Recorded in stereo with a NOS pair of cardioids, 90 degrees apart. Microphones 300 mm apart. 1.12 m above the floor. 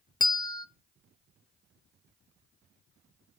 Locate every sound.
0.2 s a bell: 15° left, 0.5 m